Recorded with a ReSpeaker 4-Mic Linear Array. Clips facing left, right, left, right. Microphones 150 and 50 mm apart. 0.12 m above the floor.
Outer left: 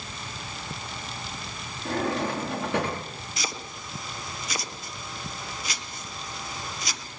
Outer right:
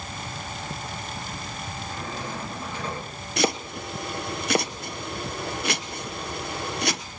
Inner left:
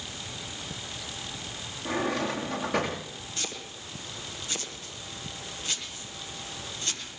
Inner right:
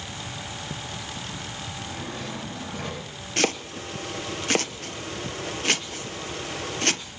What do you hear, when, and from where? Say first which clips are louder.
1.9 s a drawer: outer left 10 dB, inner left 10 dB; 75° left (ahead or behind), 8 m
3.4 s chopping: outer right 13 dB, inner right 15 dB; 65° right (ahead or behind), 1.2 m